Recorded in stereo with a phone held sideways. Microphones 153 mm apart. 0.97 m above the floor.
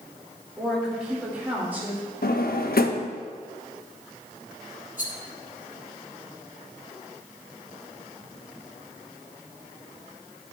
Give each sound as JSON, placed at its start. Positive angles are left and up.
{"t": 0.6, "sound": "a woman speaking", "side_deg": 0, "distance_m": 3.5}
{"t": 2.2, "sound": "a drawer", "side_deg": 80, "distance_m": 0.6}
{"t": 5.0, "sound": "a rattle", "side_deg": 60, "distance_m": 1.4}